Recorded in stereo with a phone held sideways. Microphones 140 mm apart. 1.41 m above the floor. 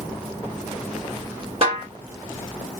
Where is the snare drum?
45° right (ahead or behind), 2.5 m.